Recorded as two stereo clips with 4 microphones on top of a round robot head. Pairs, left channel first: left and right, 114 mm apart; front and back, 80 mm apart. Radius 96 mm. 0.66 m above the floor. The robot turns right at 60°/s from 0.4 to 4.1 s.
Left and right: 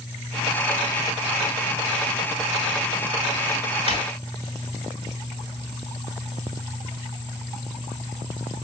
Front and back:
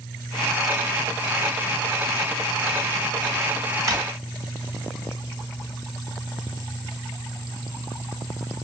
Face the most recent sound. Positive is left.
turn(degrees=140)